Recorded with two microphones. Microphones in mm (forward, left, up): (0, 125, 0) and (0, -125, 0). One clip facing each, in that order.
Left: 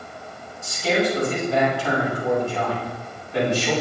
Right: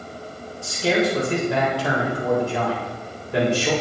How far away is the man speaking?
About 4 m.